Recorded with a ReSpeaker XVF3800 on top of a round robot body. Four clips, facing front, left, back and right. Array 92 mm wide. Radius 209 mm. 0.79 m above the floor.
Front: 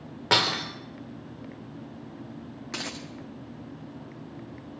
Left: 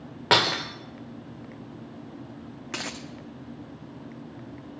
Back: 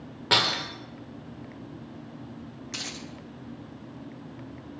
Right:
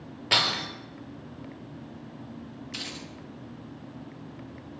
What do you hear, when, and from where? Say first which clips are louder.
0.3 s breaking glass: left 5 dB, front 1 dB; 75° left, 0.5 m
2.7 s a dropped coin: left 7 dB, front 4 dB; 55° left, 1.0 m